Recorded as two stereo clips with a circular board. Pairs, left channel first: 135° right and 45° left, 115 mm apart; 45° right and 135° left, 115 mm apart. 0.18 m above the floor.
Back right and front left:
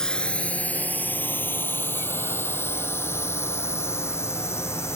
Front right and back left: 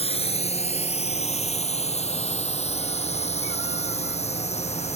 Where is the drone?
50° right; by 5.0 s 65° right.